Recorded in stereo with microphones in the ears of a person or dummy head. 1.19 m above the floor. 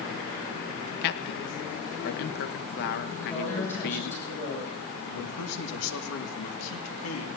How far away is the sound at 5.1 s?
About 2.5 m.